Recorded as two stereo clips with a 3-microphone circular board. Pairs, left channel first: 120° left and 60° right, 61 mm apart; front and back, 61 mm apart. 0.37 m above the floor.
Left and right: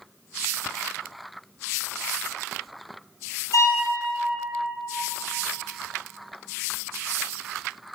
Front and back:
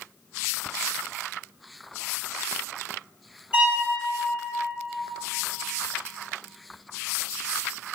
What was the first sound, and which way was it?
A violin, 115° left.